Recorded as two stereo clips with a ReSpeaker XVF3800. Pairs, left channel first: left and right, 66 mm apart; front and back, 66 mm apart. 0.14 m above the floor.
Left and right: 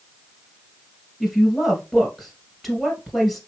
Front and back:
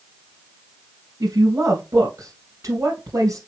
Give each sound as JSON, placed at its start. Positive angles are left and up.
{"t": 1.2, "sound": "a woman speaking", "azimuth_deg": -175, "distance_m": 1.8}